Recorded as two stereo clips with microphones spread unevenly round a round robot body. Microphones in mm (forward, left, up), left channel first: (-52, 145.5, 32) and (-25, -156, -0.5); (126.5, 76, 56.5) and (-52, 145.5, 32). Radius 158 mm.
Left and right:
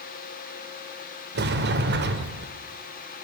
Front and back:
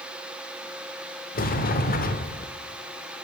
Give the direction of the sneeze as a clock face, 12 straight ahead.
No sneeze in this recording.